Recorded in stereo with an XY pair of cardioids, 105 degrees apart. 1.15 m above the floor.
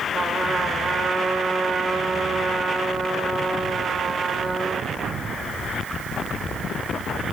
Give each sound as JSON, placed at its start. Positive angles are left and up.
{"t": 0.1, "sound": "a trumpet", "azimuth_deg": -30, "distance_m": 4.0}